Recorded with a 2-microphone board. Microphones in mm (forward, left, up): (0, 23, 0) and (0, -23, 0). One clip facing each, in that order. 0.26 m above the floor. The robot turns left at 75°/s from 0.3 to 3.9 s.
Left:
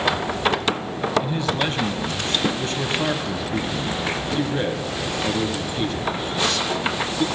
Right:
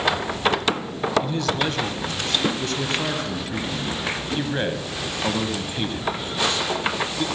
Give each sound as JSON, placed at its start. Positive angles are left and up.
{"t": 1.2, "sound": "a man speaking", "side_deg": 10, "distance_m": 1.5}